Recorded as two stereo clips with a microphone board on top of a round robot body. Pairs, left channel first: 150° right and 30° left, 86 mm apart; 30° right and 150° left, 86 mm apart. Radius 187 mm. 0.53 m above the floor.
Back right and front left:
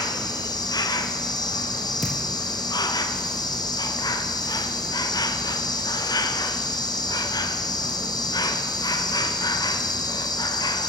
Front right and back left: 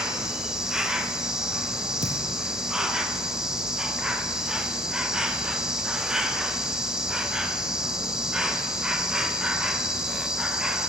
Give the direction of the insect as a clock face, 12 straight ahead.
4 o'clock.